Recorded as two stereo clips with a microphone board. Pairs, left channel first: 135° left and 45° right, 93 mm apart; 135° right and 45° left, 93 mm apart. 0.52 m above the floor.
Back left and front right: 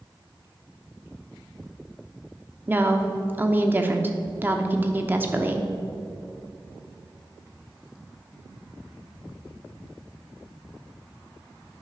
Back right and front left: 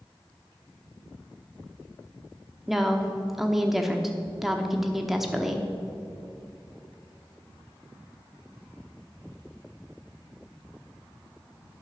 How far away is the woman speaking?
About 0.8 m.